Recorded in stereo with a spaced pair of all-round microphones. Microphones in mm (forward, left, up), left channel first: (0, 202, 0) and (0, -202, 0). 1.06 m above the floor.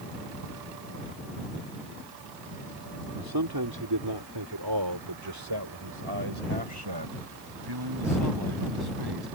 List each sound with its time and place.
3.1 s a man speaking: 55° right (ahead or behind); by 9.3 s 65° right (ahead or behind)